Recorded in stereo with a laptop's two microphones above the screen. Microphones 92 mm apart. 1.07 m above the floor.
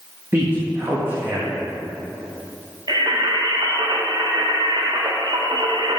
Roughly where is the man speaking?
Right.